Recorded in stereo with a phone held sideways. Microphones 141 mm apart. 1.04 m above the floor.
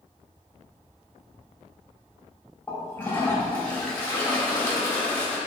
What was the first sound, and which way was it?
A toilet flushing, 10° left (ahead or behind).